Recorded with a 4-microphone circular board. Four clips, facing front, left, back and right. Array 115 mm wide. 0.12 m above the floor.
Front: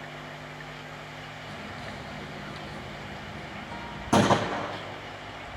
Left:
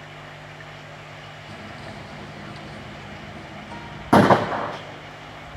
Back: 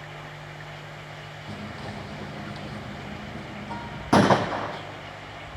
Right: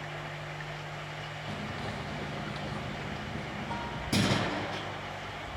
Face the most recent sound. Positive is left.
turn(degrees=105)